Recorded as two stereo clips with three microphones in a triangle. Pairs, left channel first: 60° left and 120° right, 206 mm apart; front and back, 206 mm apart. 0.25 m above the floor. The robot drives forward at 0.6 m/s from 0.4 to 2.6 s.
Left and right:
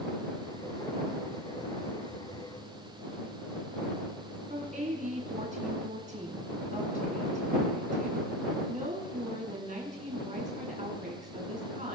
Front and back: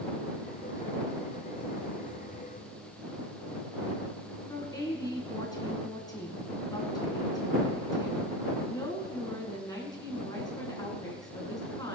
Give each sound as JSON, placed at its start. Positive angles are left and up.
{"t": 4.5, "sound": "a woman speaking", "azimuth_deg": -70, "distance_m": 3.0}